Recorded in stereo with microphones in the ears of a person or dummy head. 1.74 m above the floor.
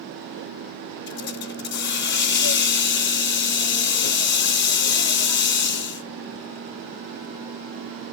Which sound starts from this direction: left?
A hiss, at 1.1 s.